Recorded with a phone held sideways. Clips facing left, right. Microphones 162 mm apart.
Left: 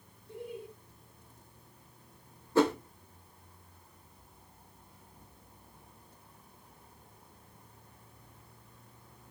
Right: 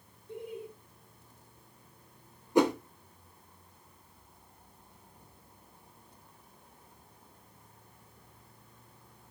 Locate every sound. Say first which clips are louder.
0.3 s laughter: right 1 dB; 20° right (ahead or behind), 1.4 m
2.5 s a whoosh: right 1 dB; 15° right (ahead or behind), 0.7 m